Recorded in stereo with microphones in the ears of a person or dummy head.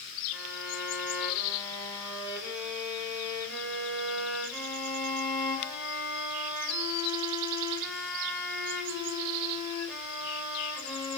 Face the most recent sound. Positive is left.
turn(degrees=5)  # may be behind; listen again after turning